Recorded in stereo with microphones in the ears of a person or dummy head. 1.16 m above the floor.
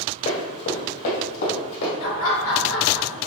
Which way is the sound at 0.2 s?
55° left (ahead or behind).